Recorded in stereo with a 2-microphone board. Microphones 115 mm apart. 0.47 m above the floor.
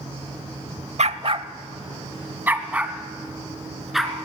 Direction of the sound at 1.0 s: 65° right (ahead or behind).